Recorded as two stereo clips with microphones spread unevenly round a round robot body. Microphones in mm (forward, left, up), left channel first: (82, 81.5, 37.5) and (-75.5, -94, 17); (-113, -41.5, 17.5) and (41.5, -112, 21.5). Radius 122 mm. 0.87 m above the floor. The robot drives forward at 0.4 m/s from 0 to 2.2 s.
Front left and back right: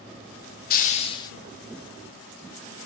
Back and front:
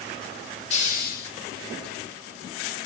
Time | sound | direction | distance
0.7 | a hiss | 100° left | 0.5 m